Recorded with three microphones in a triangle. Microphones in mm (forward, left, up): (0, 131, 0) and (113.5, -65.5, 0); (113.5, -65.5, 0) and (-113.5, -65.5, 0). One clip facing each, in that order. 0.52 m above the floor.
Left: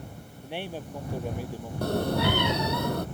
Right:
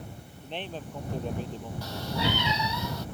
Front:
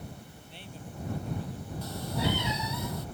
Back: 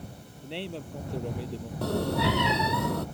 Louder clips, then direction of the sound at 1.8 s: Left 7 dB, back 6 dB; 155° left.